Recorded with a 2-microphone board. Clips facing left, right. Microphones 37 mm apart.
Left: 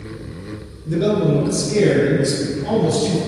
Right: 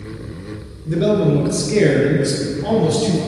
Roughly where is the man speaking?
Centre.